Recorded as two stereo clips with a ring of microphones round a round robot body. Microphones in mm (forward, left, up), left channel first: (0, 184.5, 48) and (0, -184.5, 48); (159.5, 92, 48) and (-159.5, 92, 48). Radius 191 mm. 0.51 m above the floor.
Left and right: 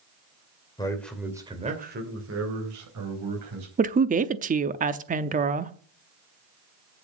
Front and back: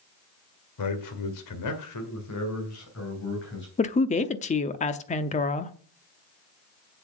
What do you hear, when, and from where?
0.8 s a man speaking: 10° left, 2.5 m; by 3.7 s 60° right, 4 m
3.8 s a woman speaking: 45° right, 0.7 m